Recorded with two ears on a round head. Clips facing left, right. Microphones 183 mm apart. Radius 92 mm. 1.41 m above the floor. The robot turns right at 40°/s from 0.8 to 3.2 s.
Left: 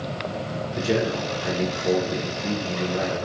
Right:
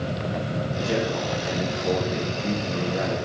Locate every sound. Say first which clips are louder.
0.8 s a man speaking: left 3 dB; 110° left, 4.5 m; by 3.1 s 155° right, 4.5 m